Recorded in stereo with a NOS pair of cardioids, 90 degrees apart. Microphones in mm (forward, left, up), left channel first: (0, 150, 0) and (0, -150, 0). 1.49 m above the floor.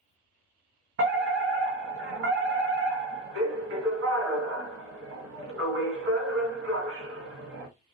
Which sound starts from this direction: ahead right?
A fire alarm, at 1.0 s.